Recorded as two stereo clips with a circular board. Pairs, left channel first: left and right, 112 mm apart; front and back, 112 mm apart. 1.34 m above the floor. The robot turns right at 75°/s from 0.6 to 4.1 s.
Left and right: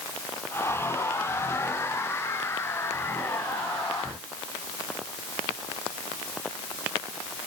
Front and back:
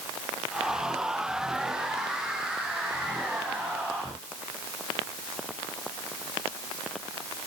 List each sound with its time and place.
Only background noise.